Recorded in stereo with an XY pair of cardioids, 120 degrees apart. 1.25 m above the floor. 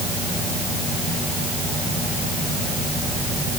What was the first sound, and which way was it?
Only background noise.